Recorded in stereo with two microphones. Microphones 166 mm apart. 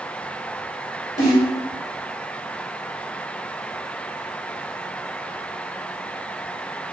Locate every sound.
1.2 s a snare drum: 45° left (ahead or behind), 2.0 m